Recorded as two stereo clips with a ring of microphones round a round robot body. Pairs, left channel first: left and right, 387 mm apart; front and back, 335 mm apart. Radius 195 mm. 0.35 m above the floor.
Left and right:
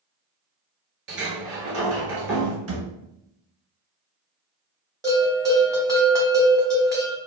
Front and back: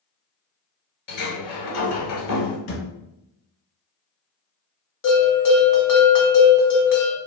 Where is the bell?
10° right, 1.3 m.